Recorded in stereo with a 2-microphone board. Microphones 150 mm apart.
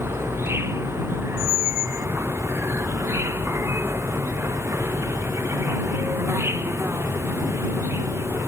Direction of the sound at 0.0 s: 15° right (ahead or behind).